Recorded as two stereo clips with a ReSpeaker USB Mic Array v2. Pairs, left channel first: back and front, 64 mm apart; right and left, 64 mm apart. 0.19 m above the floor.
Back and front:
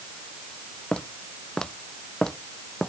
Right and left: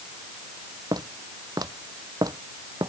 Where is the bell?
No bell in this recording.